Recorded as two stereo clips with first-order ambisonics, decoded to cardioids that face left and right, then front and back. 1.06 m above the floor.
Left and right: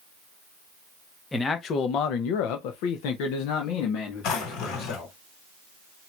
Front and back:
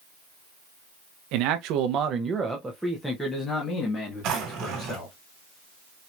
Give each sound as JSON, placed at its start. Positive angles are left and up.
{"t": 1.3, "sound": "a man speaking", "azimuth_deg": 165, "distance_m": 0.8}
{"t": 4.2, "sound": "a drawer", "azimuth_deg": 135, "distance_m": 2.0}